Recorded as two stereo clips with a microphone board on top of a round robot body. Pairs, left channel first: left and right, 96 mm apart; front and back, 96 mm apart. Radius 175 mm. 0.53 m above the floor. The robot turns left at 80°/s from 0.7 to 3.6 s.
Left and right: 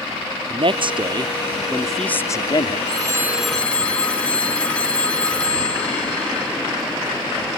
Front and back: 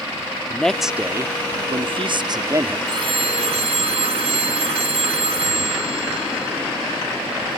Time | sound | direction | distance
0.5 | a man speaking | 85° right | ?
2.9 | a phone ringing | 130° right | ?